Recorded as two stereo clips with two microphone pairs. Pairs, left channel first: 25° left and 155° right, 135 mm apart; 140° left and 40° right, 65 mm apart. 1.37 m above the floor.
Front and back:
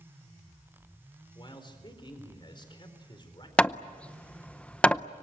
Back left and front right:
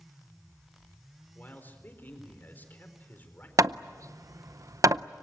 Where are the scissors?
No scissors in this recording.